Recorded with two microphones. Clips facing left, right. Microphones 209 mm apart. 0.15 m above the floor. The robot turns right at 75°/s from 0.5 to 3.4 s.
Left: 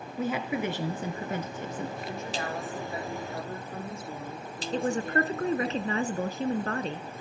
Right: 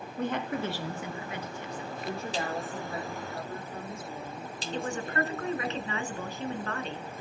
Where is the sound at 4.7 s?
40° left (ahead or behind), 1.3 m.